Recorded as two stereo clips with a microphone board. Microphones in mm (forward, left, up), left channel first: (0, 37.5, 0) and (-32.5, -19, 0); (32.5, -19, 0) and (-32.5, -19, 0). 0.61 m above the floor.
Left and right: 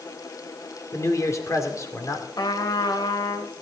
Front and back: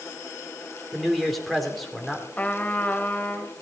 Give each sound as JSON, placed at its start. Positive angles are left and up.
{"t": 0.9, "sound": "a man speaking", "azimuth_deg": 90, "distance_m": 2.0}
{"t": 2.4, "sound": "a trumpet", "azimuth_deg": 65, "distance_m": 1.0}